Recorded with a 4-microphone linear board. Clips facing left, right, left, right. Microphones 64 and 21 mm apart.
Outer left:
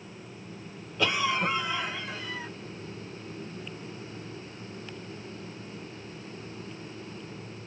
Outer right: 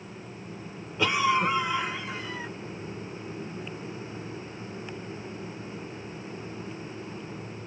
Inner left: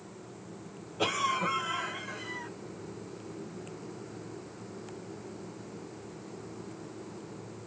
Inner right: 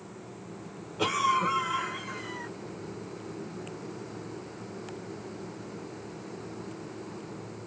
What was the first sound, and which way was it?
A cough, 20° right (ahead or behind).